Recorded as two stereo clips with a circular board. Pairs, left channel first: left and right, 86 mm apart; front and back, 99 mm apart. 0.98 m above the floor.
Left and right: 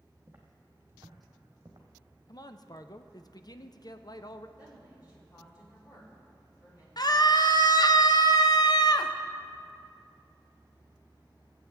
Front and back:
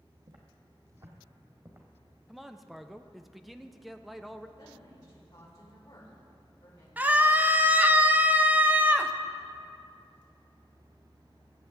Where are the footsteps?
155° right, 1.8 m; by 1.9 s 120° right, 2.0 m.